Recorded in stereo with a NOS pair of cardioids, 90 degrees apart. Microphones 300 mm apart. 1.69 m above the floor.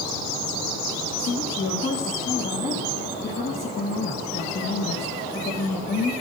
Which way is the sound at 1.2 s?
35° left.